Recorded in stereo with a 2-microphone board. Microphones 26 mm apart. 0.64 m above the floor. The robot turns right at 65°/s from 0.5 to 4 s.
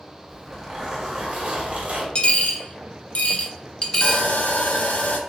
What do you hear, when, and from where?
0.3 s a zipper: straight behind, 1.2 m; by 2.0 s 80° right, 1.2 m
2.1 s a dropped coin: 40° left (ahead or behind), 0.5 m; by 4.3 s 20° left (ahead or behind), 0.5 m
4.0 s sawing: 65° left (ahead or behind), 0.5 m